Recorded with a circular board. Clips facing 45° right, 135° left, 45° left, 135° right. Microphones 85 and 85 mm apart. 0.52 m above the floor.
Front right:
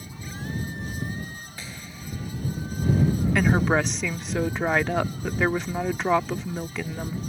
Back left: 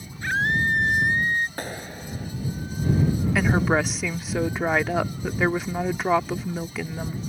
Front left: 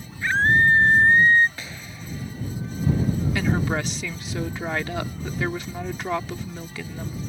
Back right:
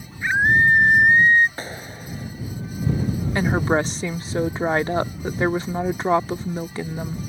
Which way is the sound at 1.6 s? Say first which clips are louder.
Back left 7 dB, back right 5 dB; 175° left.